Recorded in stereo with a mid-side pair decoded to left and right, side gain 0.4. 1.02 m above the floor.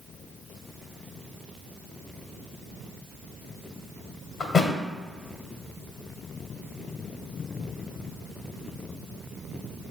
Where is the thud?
55° left, 1.9 m.